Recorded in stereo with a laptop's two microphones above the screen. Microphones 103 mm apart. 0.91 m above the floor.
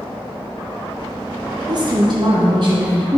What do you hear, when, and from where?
1.7 s a woman speaking: 45° right (ahead or behind), 1.1 m